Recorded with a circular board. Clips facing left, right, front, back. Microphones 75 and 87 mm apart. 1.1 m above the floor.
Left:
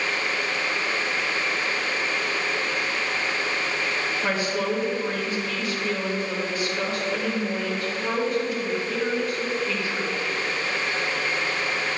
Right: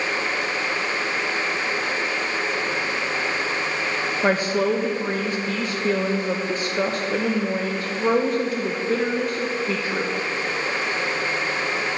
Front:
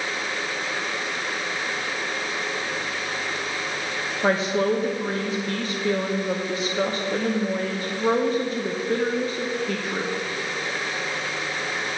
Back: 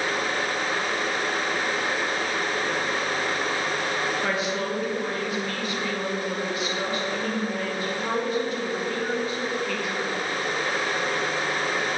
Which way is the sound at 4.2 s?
50° right.